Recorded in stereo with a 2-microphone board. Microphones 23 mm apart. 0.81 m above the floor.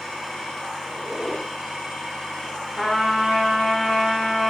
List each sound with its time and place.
0.8 s a squeak: 20° right (ahead or behind), 3.5 m
2.8 s a trumpet: 15° right (ahead or behind), 2.5 m